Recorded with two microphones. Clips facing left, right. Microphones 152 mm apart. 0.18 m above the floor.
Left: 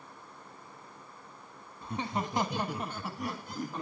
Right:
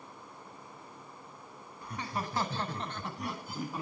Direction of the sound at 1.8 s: 25° left (ahead or behind).